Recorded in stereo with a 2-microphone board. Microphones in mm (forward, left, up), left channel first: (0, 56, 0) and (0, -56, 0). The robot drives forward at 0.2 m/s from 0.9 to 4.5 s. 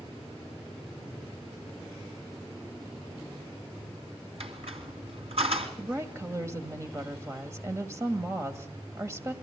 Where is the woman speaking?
25° right (ahead or behind), 2.0 m.